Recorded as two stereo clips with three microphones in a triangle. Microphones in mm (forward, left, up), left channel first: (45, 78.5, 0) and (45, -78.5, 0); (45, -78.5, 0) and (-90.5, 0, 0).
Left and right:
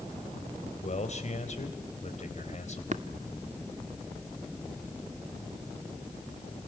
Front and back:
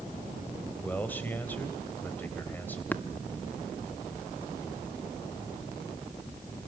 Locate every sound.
0.8 s a man speaking: 50° left, 3.5 m
2.9 s tapping: 105° right, 1.2 m